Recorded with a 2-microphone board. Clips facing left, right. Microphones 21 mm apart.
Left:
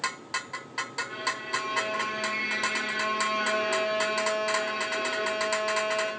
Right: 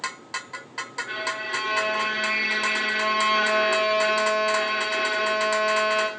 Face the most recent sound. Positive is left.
turn(degrees=-85)